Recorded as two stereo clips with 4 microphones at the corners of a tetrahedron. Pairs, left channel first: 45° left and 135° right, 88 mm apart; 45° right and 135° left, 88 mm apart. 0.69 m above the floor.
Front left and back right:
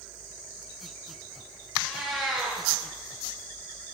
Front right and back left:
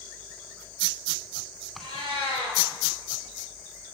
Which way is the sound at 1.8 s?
40° right.